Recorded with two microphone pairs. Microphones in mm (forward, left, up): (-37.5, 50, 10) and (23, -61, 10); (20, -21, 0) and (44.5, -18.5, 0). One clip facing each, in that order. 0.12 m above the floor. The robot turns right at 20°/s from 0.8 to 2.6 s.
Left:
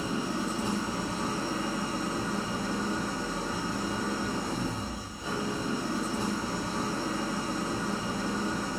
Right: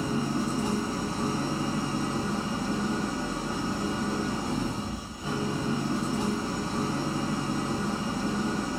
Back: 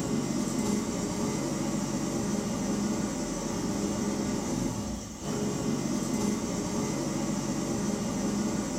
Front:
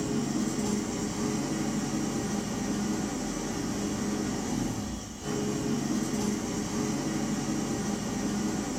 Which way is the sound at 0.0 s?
45° right.